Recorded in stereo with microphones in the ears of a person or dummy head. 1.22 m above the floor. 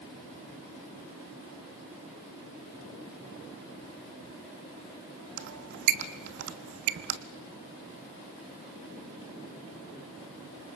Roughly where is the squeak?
Right.